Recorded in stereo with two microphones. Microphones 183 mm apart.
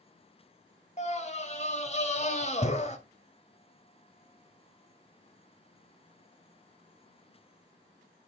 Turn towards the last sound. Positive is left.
turn(degrees=40)  # may be behind; listen again after turning